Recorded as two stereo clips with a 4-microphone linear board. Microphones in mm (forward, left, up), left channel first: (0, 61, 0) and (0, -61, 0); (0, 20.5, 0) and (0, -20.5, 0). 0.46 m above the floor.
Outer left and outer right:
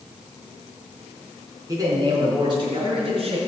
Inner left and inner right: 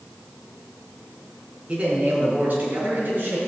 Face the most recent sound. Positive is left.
turn(degrees=-50)  # may be behind; listen again after turning